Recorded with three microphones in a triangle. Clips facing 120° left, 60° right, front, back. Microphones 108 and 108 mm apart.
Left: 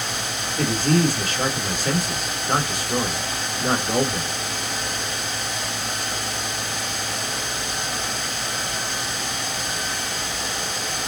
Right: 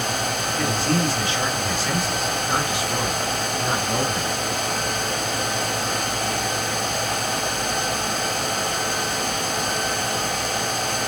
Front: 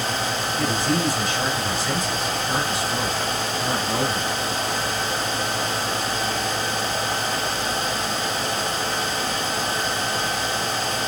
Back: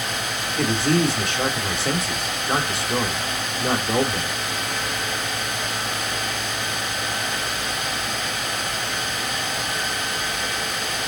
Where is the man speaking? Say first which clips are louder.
Left 4 dB, back 4 dB; 165° left, 1.7 m.